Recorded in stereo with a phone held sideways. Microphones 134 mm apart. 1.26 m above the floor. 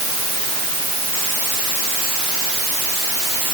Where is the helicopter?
I don't hear a helicopter.